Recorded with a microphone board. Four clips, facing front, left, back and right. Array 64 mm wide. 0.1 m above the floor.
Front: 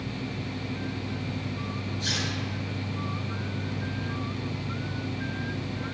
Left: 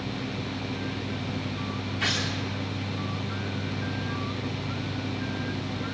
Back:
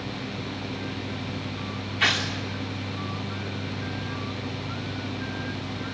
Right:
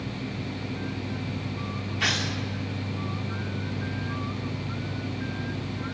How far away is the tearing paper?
About 4 m.